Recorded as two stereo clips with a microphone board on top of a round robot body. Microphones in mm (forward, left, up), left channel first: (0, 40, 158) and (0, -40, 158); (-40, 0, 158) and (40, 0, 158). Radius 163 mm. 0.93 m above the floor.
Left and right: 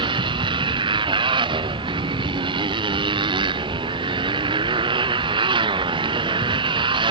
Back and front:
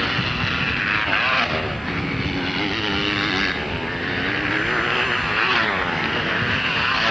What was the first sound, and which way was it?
A motorcycle, 90° right.